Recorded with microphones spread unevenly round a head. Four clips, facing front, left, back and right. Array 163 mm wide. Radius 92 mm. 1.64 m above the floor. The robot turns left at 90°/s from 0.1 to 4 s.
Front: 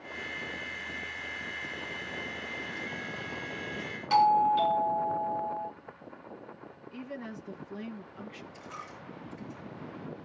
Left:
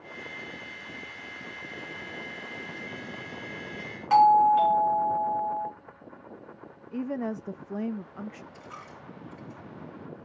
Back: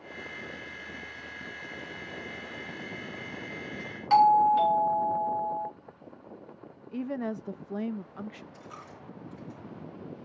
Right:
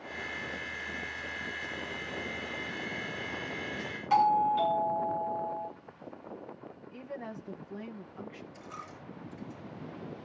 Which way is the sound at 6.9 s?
100° left.